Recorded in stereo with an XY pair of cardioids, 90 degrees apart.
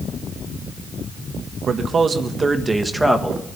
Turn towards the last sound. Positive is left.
turn(degrees=5)